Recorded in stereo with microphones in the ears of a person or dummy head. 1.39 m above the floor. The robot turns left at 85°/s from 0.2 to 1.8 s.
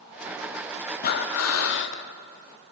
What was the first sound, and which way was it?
Breathing, 125° left.